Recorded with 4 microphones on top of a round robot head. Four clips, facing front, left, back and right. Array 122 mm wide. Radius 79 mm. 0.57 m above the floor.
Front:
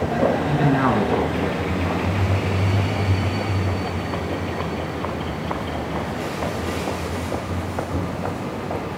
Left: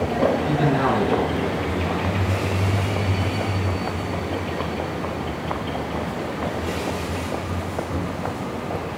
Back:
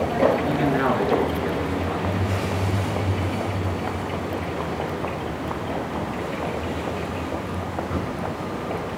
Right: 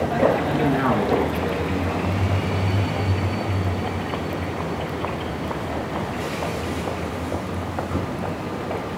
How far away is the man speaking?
About 5.5 m.